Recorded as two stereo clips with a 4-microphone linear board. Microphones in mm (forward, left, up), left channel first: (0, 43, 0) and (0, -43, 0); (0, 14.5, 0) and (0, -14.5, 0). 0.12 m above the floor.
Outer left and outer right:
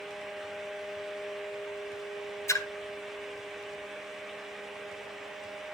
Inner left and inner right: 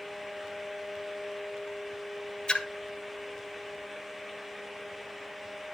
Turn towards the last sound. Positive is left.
turn(degrees=35)  # may be behind; listen again after turning